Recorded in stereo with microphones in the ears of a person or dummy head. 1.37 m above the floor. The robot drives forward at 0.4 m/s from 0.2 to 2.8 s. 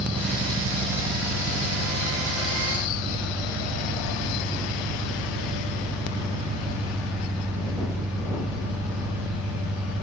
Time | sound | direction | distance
0.0 | an engine running | 30° right (ahead or behind) | 1.0 m